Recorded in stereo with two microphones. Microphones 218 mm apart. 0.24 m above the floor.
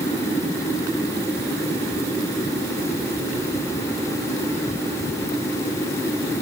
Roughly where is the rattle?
I don't hear a rattle.